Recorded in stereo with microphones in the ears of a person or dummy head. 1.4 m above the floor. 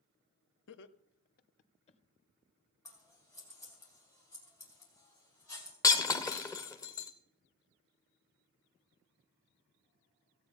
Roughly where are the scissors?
Centre.